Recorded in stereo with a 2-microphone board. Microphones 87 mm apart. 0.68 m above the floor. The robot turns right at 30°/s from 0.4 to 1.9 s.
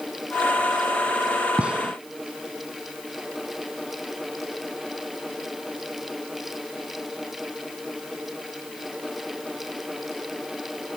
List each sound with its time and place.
1.6 s a gunshot: 15° right (ahead or behind); by 1.9 s 5° right (ahead or behind)